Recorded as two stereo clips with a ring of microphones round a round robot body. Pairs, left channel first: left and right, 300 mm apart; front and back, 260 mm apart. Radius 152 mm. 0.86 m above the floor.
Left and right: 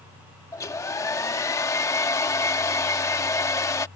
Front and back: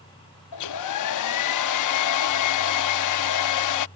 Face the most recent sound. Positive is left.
turn(degrees=10)